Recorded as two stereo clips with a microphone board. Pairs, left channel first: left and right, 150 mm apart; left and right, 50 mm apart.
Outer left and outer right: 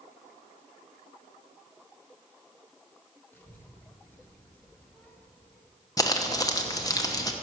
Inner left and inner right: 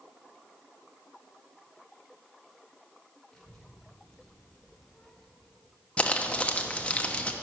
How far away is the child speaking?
About 2.5 m.